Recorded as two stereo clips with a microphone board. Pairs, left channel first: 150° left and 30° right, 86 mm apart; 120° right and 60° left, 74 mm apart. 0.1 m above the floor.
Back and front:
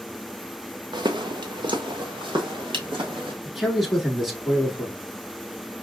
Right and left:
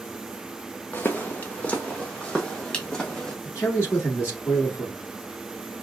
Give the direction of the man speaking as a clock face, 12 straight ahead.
4 o'clock.